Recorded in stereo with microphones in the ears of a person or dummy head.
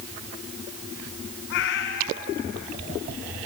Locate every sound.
1.5 s a cat meowing: 60° left (ahead or behind), 2 m